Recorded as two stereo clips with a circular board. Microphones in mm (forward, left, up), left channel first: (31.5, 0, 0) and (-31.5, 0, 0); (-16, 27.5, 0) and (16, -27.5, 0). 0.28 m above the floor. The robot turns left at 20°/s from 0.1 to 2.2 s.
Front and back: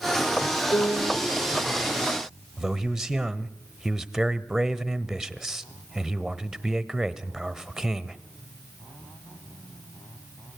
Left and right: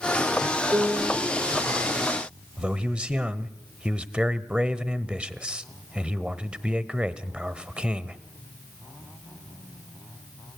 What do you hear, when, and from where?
0.7 s a piano: 5° right, 4 m; by 1.2 s 15° right, 4 m
2.6 s a man speaking: 110° right, 0.9 m